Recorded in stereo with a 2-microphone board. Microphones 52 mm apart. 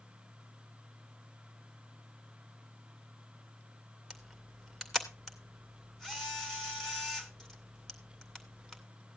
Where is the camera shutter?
10° left (ahead or behind), 2 m.